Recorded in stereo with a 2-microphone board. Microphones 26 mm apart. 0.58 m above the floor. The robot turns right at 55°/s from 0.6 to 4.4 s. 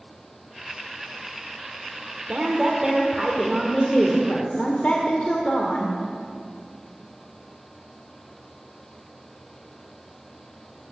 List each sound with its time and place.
2.3 s a woman speaking: 55° right, 1.4 m; by 6.0 s 60° left, 1.4 m